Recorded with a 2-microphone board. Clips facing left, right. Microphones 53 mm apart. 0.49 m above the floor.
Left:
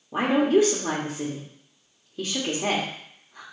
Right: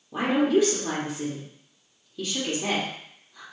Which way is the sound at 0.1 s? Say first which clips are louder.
Left 2 dB; 30° left (ahead or behind).